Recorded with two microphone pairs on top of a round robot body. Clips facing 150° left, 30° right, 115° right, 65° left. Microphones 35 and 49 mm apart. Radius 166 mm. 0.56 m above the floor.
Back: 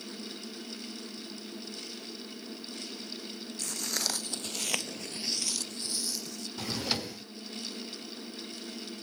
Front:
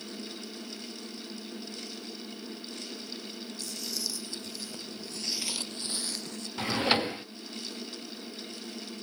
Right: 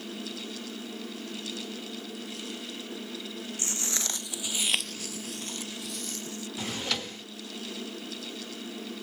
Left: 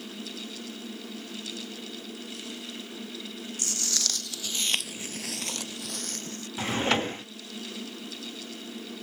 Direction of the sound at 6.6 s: 10° left.